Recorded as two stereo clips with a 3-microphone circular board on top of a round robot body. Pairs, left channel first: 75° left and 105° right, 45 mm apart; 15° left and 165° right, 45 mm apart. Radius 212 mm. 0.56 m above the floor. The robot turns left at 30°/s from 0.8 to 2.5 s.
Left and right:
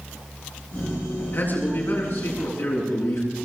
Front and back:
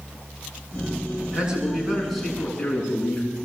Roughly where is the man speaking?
Behind left.